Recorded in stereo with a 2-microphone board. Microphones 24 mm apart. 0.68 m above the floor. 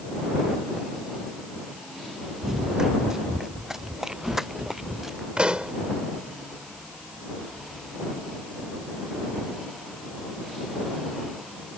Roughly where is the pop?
Right.